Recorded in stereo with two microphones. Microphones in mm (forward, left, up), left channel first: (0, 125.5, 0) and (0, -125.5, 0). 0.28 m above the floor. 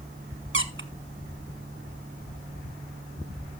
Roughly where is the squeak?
Right.